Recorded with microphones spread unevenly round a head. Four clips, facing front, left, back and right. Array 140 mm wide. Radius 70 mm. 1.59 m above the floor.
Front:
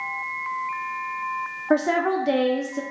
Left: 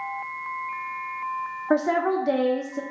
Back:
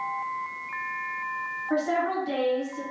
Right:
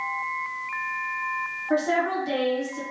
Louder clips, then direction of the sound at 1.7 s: Left 2 dB, front 5 dB; 30° left.